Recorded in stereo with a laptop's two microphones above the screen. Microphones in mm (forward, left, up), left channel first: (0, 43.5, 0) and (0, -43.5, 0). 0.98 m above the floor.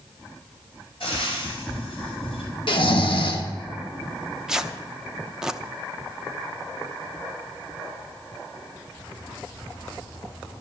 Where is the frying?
80° left, 4.5 m.